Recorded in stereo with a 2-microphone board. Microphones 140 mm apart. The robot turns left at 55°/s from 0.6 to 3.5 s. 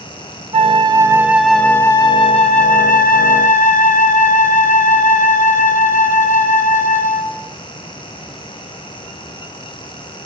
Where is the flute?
130° right, 0.5 m; by 7.4 s 70° left, 0.5 m.